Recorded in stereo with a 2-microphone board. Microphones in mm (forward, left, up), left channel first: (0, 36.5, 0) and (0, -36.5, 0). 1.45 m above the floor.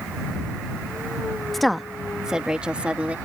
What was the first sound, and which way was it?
A woman speaking, centre (ahead or behind).